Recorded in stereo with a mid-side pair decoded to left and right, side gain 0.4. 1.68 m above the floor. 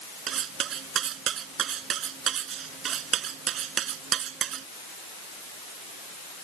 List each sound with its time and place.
0.3 s cutlery clinking: 65° right